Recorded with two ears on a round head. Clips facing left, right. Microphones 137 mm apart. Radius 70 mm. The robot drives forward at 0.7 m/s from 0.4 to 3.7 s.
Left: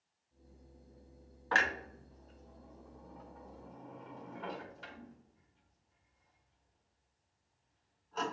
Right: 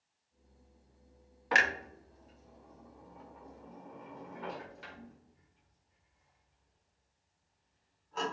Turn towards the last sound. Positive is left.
turn(degrees=-5)  # may be behind; listen again after turning